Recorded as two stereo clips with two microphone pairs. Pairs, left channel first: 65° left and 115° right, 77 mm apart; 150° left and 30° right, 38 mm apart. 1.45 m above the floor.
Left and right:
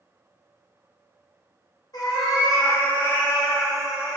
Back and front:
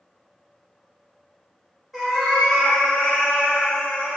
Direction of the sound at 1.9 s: 55° left.